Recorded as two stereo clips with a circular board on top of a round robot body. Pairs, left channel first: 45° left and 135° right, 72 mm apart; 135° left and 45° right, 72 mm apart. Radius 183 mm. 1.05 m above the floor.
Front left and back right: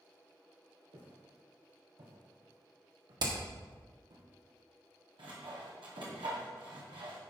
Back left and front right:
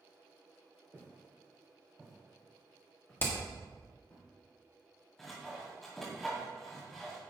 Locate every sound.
0.9 s footsteps: 110° right, 3 m; by 4.2 s 160° right, 3 m
3.2 s hammering: 165° right, 1.7 m
5.2 s sawing: 140° right, 1.6 m